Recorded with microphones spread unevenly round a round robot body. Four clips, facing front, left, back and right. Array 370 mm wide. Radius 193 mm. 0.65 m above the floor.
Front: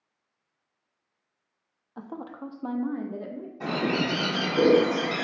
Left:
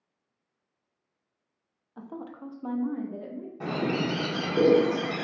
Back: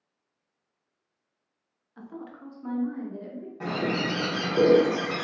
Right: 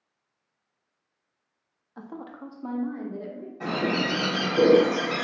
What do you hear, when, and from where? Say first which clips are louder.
2.0 s a woman speaking: right 1 dB, front 3 dB; 10° right, 0.6 m
3.6 s a bird: right 2 dB, front 1 dB; 120° left, 1.5 m